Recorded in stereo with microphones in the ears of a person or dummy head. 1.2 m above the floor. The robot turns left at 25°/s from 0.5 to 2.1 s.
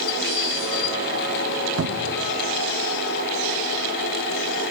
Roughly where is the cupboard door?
Right.